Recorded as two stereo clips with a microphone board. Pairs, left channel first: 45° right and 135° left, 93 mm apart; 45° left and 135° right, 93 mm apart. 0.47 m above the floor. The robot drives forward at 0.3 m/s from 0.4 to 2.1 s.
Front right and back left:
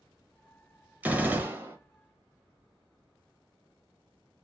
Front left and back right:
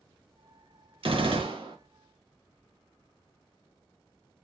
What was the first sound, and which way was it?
A gunshot, 150° right.